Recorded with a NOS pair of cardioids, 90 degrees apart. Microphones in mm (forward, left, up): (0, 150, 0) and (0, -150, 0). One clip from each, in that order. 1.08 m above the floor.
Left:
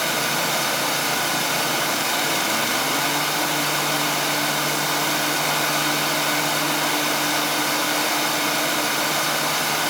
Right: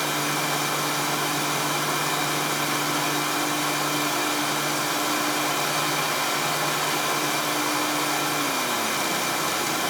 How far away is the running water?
About 1.6 m.